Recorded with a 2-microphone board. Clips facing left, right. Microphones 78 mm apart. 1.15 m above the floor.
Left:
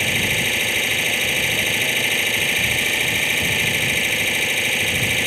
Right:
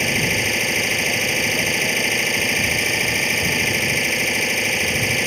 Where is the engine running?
5° right (ahead or behind).